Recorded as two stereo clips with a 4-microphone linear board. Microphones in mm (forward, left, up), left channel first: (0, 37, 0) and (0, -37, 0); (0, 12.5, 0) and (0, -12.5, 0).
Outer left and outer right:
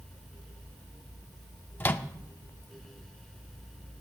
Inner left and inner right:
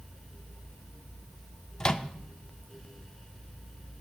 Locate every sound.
1.8 s a microwave: 30° left (ahead or behind), 0.5 m